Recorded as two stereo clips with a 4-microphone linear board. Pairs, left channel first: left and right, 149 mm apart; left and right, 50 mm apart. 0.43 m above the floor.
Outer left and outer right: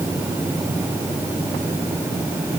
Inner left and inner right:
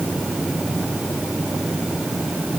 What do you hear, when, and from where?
Only background noise.